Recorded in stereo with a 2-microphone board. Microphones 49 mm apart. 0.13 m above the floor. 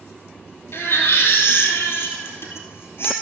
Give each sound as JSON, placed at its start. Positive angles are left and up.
{"t": 0.7, "sound": "a baby crying", "side_deg": 55, "distance_m": 1.8}